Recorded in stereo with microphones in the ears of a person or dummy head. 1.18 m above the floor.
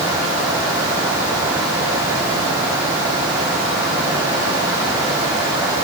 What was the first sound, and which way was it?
Only background noise.